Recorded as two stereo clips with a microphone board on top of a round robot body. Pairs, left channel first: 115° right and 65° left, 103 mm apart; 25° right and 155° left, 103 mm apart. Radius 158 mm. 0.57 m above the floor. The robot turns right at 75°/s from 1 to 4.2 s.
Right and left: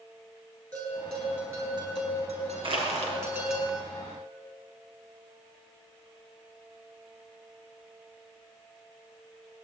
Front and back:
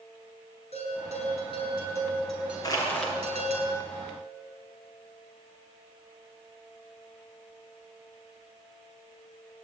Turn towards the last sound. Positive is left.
turn(degrees=145)